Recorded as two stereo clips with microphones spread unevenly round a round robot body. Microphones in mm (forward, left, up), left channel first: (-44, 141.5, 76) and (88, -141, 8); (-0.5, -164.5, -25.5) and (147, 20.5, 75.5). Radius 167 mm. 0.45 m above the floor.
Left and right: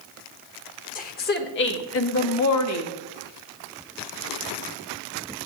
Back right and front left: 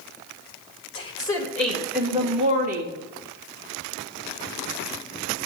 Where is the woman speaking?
175° right, 1.3 m; by 2.9 s 110° left, 1.0 m.